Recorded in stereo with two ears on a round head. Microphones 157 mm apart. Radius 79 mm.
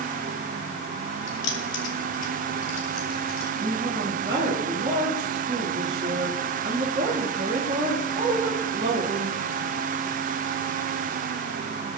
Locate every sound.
1.3 s keys jangling: 65° left (ahead or behind), 3 m; by 3.5 s 75° left (ahead or behind), 4.5 m
3.6 s a woman speaking: 25° right (ahead or behind), 4 m